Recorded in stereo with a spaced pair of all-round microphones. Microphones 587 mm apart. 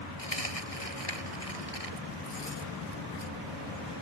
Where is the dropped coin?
75° left (ahead or behind).